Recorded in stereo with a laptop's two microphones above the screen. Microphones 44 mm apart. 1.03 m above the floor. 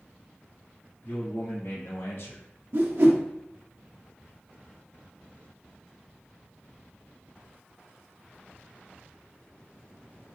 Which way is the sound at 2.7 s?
55° right (ahead or behind).